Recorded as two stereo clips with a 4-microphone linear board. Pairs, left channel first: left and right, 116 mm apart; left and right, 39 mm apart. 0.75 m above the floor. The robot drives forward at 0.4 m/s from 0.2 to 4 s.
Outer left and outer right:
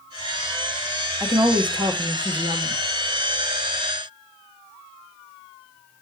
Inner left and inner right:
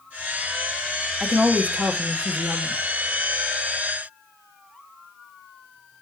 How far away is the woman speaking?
About 1.1 m.